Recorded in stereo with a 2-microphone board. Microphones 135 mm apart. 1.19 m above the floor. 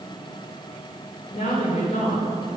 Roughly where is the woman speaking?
Left.